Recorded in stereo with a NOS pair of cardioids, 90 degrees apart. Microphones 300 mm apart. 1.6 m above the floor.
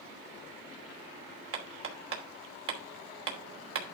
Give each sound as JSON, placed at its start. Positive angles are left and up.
{"t": 1.5, "sound": "hammering", "azimuth_deg": -50, "distance_m": 3.0}